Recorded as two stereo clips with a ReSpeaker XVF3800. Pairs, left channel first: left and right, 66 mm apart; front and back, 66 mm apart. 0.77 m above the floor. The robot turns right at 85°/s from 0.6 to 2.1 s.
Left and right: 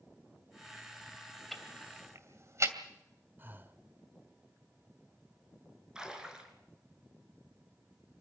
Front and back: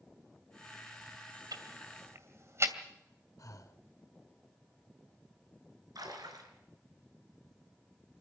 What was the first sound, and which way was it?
Ticking, 175° left.